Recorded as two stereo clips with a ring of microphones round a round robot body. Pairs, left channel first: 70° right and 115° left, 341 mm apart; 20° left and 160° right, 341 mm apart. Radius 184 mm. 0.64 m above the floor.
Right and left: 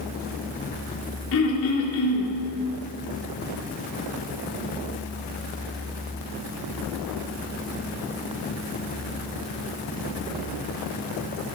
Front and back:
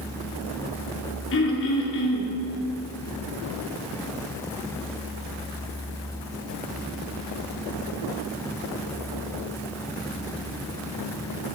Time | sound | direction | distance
1.3 | throat clearing | 25° right | 2.5 m